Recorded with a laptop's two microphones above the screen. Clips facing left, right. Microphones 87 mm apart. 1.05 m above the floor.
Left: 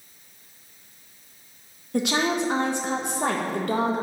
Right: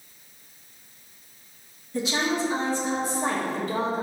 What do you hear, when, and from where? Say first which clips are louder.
1.9 s a woman speaking: left 2 dB; 70° left (ahead or behind), 0.9 m